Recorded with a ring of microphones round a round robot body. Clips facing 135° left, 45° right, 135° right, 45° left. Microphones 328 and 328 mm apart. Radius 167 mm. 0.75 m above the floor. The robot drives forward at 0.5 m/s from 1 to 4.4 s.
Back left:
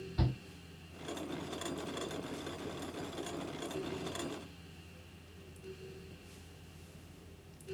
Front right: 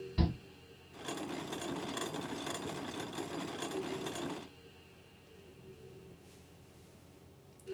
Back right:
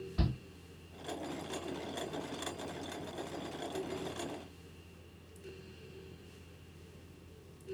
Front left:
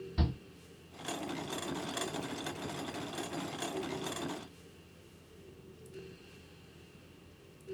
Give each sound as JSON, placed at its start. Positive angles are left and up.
{"t": 0.2, "sound": "a shout", "azimuth_deg": 15, "distance_m": 2.5}